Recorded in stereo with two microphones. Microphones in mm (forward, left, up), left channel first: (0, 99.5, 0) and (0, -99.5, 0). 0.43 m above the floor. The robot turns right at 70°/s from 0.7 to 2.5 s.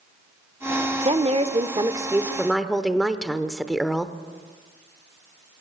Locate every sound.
1.1 s a woman speaking: 100° right, 0.9 m; by 4.1 s straight ahead, 0.9 m